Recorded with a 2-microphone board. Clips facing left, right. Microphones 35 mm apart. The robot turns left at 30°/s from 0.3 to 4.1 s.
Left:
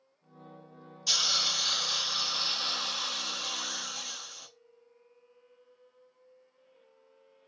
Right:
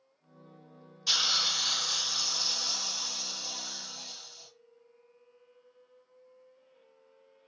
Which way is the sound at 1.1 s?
165° right.